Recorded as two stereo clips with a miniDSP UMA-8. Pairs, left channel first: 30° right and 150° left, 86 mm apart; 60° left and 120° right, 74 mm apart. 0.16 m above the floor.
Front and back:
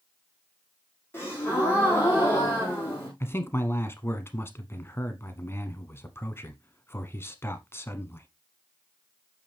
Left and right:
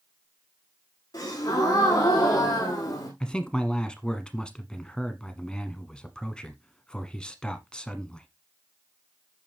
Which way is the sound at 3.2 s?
10° right.